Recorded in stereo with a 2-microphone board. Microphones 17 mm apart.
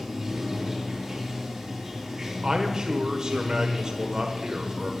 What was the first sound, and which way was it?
Running water, 15° right (ahead or behind).